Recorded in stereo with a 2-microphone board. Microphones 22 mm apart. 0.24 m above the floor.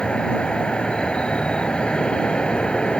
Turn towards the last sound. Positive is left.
turn(degrees=45)  # may be behind; listen again after turning